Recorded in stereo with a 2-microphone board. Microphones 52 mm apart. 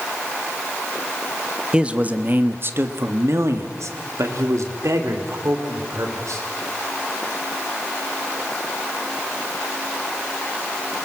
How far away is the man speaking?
About 1.2 m.